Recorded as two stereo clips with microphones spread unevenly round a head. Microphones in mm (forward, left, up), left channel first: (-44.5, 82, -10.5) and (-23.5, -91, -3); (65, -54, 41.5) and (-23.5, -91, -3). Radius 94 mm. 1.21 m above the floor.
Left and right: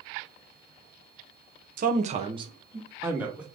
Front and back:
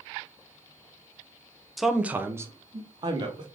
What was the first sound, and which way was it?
A man speaking, 95° right.